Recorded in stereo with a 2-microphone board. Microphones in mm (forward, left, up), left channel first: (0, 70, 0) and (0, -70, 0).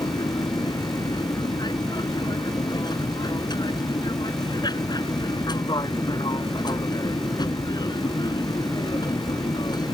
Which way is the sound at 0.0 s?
30° left (ahead or behind).